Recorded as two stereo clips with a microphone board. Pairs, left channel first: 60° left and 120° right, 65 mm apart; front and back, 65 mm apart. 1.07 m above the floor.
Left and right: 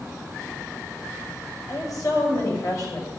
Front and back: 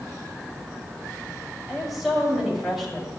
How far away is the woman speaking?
About 6.5 m.